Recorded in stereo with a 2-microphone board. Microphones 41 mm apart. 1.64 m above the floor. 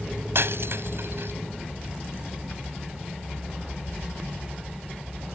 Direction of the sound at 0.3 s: 70° right (ahead or behind).